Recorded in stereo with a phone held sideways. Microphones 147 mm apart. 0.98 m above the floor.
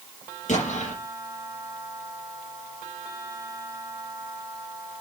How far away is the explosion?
About 5 m.